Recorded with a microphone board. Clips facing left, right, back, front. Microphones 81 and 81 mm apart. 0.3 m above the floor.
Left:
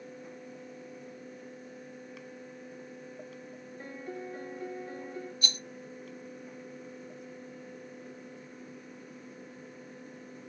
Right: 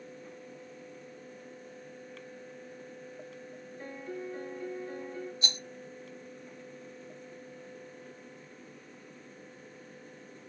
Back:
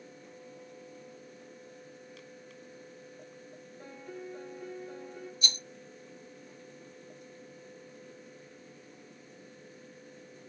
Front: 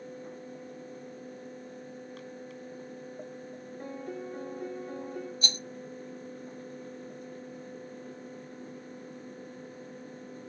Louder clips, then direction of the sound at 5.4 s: Even, front 2 dB; 30° right.